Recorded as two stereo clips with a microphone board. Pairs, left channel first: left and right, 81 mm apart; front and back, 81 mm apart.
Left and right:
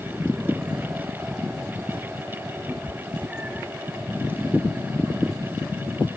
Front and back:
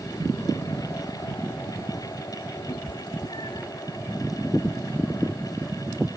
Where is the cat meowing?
20° right.